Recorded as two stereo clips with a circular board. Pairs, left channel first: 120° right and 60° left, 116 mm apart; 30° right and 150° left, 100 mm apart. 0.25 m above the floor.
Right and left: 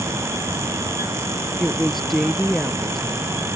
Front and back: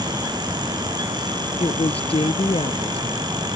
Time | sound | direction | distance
1.6 | a woman speaking | 30° right | ?